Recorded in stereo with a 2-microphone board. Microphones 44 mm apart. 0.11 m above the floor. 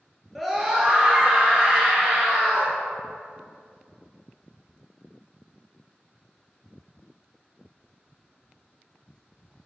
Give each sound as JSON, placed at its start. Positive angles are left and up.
{"t": 0.3, "sound": "a scream", "side_deg": 0, "distance_m": 1.4}